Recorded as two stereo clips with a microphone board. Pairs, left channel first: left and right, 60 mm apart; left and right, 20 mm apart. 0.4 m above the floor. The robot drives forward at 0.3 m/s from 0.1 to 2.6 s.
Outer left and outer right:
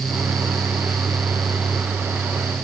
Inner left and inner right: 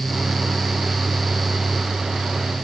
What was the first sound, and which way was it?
Only background noise.